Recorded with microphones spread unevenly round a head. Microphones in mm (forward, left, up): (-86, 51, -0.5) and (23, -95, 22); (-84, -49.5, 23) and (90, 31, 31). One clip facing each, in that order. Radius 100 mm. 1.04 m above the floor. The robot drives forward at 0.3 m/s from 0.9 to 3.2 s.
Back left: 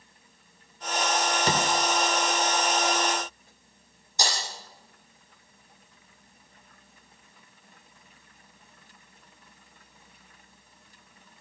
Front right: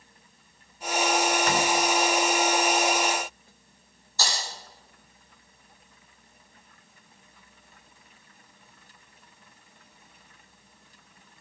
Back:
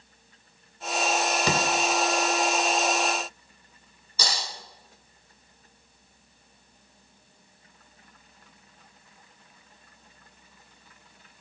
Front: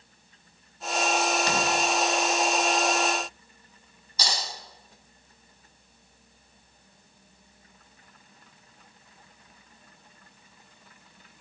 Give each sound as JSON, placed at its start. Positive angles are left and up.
{"t": 1.5, "sound": "a door slam", "azimuth_deg": -175, "distance_m": 2.5}
{"t": 4.2, "sound": "breaking glass", "azimuth_deg": -160, "distance_m": 9.5}